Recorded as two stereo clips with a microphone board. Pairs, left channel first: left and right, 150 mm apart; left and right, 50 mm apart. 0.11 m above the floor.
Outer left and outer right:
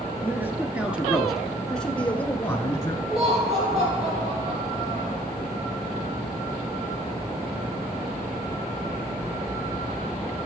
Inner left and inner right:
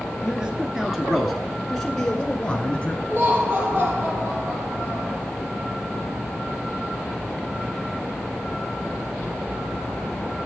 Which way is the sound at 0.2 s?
15° right (ahead or behind).